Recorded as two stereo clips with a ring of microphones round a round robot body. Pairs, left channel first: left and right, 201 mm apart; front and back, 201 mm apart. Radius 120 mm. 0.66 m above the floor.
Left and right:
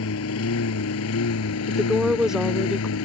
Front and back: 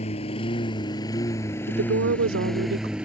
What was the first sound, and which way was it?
A lawn mower, 65° left.